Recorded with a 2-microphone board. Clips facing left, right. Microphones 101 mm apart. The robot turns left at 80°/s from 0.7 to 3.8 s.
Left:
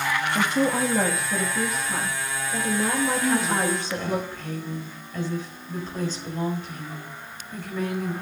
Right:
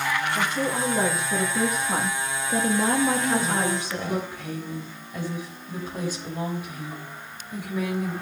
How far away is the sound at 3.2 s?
About 4.5 m.